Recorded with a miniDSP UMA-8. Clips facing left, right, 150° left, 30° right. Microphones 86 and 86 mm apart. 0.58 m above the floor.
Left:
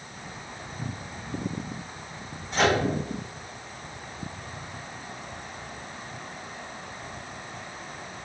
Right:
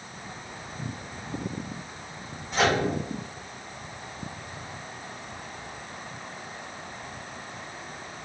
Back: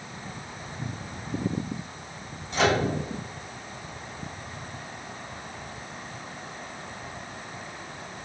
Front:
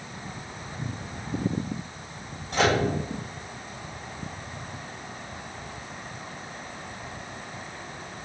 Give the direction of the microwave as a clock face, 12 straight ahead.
12 o'clock.